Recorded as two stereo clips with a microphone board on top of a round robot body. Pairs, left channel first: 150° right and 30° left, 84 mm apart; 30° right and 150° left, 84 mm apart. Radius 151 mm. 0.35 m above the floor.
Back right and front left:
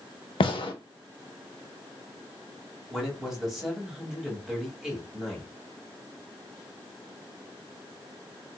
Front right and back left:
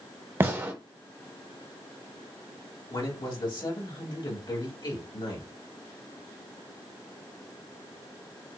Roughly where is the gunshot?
Behind right.